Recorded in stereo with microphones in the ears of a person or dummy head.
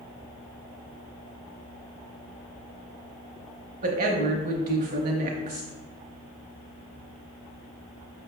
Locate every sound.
3.8 s a woman speaking: 45° right (ahead or behind), 0.8 m